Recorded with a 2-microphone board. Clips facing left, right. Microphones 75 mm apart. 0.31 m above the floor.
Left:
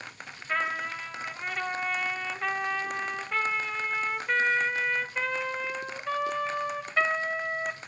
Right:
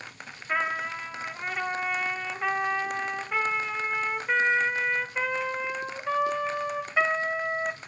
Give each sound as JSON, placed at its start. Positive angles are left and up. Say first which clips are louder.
{"t": 0.5, "sound": "a trumpet", "louder": "right 2 dB", "side_deg": -10, "distance_m": 1.1}